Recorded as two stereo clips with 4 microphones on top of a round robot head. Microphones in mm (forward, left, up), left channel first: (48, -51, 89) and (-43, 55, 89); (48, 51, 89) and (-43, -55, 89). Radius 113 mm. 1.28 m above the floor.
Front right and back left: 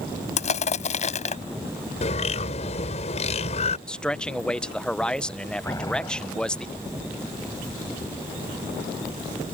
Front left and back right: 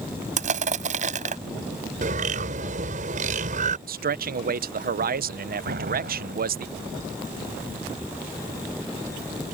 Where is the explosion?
120° right.